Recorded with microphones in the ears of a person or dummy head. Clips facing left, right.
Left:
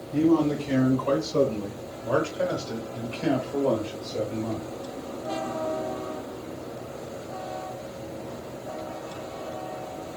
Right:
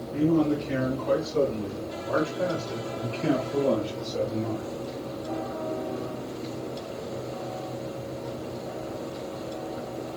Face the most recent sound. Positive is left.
turn(degrees=-15)  # may be behind; listen again after turning